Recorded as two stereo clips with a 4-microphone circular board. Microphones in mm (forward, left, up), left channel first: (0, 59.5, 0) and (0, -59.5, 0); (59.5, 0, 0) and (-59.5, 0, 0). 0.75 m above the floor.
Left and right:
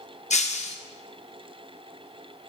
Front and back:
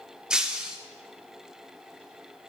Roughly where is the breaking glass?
Left.